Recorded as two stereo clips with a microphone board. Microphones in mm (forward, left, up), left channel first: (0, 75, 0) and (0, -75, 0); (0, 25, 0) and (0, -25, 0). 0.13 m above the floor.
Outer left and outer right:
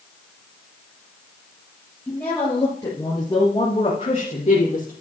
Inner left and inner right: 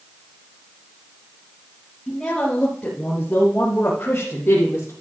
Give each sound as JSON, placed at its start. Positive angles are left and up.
{"t": 2.1, "sound": "a woman speaking", "side_deg": 10, "distance_m": 3.5}